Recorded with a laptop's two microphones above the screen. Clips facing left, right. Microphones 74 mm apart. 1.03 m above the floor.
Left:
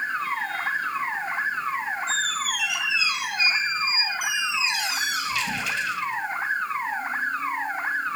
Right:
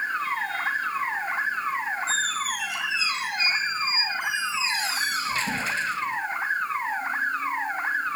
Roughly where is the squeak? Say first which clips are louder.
Even; right.